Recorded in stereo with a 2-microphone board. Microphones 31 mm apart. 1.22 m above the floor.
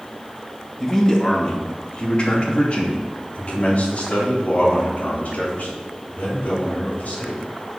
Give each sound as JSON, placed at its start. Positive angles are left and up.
{"t": 0.8, "sound": "a man speaking", "side_deg": 15, "distance_m": 2.0}